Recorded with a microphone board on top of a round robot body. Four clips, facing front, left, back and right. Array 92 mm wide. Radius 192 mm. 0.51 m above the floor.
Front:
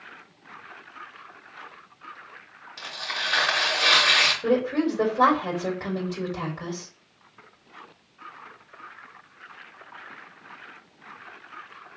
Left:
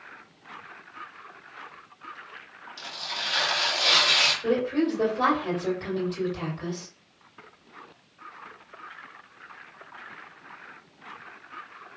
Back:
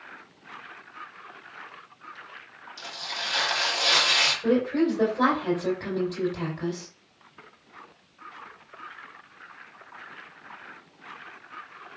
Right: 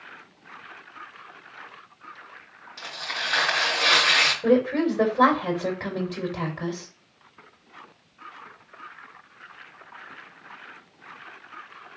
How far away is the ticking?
No ticking in this recording.